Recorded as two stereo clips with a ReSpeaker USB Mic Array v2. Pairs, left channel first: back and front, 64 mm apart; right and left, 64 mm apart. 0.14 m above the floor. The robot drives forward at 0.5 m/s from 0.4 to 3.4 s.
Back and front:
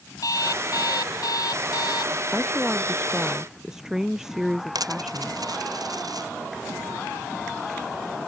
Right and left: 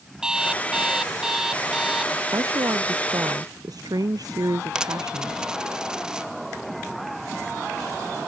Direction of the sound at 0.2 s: 170° left.